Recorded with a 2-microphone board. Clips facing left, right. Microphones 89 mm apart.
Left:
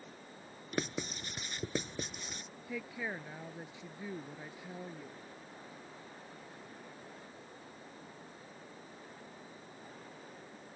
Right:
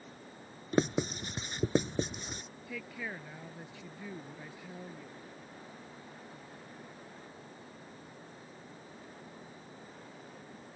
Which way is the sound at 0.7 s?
30° right (ahead or behind).